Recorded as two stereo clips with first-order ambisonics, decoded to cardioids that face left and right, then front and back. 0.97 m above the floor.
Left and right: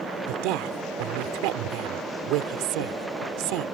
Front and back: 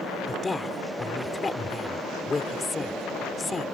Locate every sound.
0.3 s a woman speaking: 75° right